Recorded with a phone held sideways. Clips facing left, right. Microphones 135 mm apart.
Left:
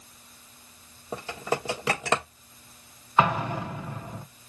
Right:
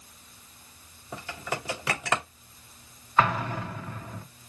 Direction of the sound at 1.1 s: 30° left (ahead or behind).